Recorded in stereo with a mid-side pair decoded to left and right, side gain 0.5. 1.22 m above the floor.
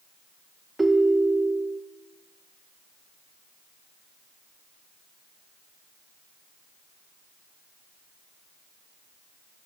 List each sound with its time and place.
0.8 s a ringtone: 15° right, 0.5 m